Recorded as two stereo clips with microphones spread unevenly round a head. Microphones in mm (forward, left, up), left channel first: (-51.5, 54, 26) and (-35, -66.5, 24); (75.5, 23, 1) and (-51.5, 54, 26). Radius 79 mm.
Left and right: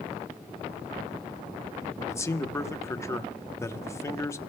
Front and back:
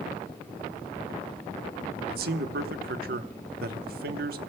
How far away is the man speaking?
About 0.9 m.